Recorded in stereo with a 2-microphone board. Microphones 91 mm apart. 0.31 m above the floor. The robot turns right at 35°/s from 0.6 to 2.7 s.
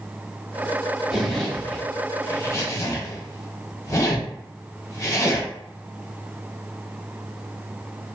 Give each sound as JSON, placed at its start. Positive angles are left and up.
{"t": 1.1, "sound": "a zipper", "side_deg": -5, "distance_m": 0.9}